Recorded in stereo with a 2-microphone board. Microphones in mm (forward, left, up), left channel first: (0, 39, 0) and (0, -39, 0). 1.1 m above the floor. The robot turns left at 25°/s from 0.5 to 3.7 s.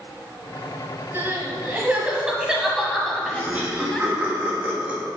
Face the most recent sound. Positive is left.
turn(degrees=-20)  # may be behind; listen again after turning